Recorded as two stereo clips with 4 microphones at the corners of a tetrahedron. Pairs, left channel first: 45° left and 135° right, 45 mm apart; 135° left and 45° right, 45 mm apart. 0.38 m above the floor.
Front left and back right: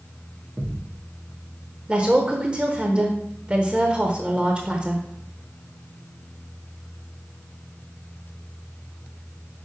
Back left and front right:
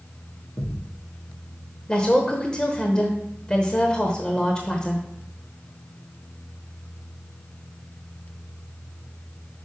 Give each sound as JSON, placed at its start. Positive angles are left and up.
{"t": 0.6, "sound": "a thud", "azimuth_deg": 155, "distance_m": 2.5}
{"t": 1.9, "sound": "a woman speaking", "azimuth_deg": -175, "distance_m": 0.9}